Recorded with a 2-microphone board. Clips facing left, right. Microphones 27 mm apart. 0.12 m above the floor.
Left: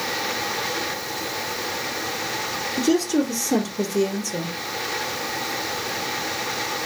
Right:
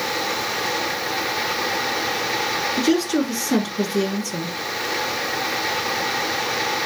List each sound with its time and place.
2.8 s a woman speaking: 35° right (ahead or behind), 1.4 m